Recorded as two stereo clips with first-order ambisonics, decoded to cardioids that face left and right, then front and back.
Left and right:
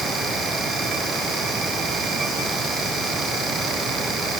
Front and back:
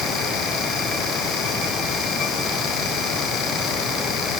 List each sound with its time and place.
Only background noise.